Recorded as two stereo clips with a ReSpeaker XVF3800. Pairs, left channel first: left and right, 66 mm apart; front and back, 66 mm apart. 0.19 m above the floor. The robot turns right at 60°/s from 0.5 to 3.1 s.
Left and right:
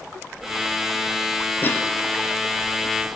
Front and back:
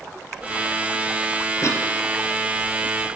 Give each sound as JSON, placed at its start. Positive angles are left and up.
{"t": 1.6, "sound": "a cough", "azimuth_deg": 35, "distance_m": 4.0}